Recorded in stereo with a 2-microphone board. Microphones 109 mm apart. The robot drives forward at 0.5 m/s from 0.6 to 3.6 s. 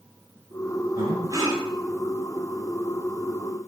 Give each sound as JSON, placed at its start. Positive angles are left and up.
{"t": 1.0, "sound": "breathing", "side_deg": -35, "distance_m": 3.5}